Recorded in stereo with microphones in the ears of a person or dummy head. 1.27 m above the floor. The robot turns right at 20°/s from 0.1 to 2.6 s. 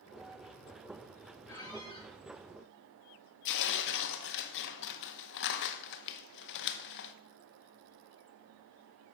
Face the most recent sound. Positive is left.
turn(degrees=60)  # may be behind; listen again after turning